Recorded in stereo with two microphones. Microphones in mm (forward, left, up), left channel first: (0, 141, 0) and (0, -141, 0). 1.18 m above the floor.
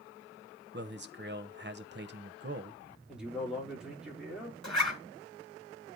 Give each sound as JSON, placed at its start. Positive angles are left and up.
{"t": 0.7, "sound": "a man speaking", "side_deg": -40, "distance_m": 0.8}
{"t": 3.1, "sound": "a man speaking", "side_deg": -5, "distance_m": 3.5}
{"t": 4.6, "sound": "a zipper", "side_deg": 75, "distance_m": 2.5}